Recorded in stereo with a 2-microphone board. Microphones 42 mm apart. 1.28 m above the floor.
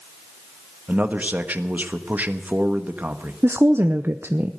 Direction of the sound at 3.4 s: 65° right (ahead or behind).